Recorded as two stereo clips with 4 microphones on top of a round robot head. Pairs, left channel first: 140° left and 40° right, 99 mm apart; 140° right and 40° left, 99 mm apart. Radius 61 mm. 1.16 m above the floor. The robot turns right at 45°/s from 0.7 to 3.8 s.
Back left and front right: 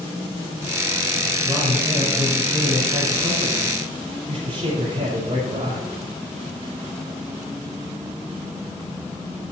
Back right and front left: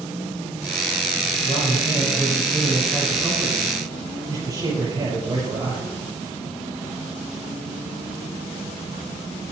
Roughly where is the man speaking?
Behind right.